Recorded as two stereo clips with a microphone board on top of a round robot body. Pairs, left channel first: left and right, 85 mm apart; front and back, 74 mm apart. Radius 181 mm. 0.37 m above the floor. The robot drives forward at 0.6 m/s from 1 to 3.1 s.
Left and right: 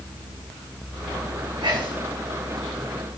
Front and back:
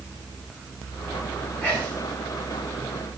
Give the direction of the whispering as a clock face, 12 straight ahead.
2 o'clock.